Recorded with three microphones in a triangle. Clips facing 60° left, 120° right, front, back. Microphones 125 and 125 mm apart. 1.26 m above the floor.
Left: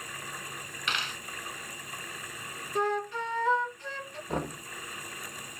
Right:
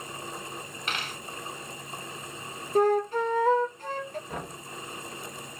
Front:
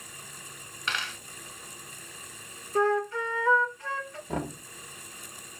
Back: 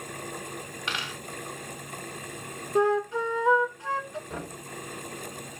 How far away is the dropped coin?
About 1.4 m.